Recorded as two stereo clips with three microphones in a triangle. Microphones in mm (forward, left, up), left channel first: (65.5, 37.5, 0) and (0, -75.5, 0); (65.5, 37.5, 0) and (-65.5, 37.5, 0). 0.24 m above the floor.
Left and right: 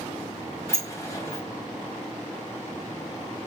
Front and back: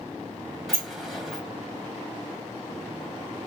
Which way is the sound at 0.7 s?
90° left.